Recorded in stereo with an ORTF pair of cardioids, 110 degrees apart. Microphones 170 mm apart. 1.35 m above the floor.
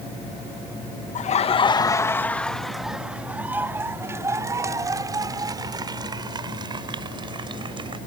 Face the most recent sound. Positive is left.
turn(degrees=-30)